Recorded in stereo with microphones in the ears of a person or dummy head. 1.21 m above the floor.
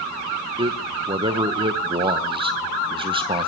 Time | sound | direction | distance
0.6 | a man speaking | 25° right (ahead or behind) | 0.8 m